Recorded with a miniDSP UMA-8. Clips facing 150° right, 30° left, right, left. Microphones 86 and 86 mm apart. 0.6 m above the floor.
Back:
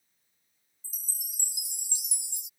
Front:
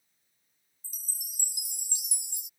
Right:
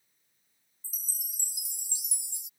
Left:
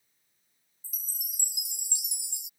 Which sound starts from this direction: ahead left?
A chime, at 0.8 s.